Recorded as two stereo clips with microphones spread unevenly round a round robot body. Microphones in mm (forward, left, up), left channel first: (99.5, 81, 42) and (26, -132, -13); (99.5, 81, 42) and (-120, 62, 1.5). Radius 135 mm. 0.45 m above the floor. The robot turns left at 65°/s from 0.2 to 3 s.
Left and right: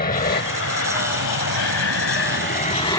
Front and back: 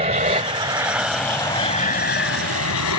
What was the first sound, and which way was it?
An aircraft, 135° left.